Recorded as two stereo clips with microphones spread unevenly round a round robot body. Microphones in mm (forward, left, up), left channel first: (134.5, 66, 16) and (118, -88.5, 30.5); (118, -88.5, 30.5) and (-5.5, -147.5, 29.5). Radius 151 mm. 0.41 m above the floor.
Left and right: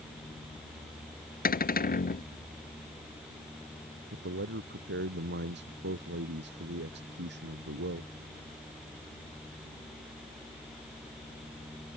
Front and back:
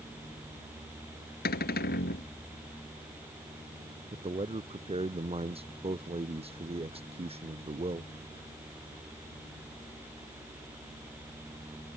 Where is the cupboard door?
60° left.